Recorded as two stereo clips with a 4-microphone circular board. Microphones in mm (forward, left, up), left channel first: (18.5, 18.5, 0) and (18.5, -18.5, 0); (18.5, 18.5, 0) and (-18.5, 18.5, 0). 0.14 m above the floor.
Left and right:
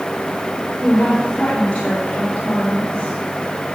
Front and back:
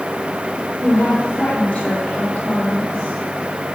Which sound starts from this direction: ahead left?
A woman speaking, at 0.8 s.